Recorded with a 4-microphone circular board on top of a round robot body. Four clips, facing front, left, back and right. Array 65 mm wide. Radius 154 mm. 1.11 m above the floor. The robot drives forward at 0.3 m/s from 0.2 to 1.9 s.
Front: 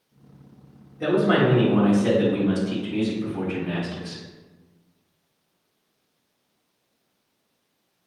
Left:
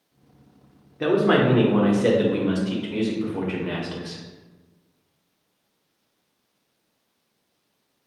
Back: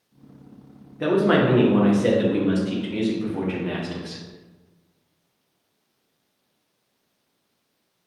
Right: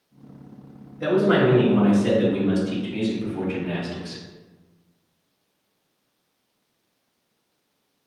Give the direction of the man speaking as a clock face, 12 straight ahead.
8 o'clock.